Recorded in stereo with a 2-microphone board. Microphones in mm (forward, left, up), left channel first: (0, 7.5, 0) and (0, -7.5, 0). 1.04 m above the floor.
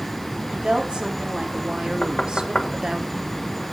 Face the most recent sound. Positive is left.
turn(degrees=55)  # may be behind; listen again after turning